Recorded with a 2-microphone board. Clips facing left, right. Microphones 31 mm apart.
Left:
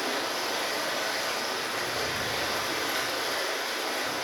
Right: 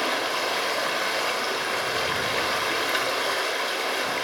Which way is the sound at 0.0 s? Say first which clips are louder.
Right 5 dB; 85° right.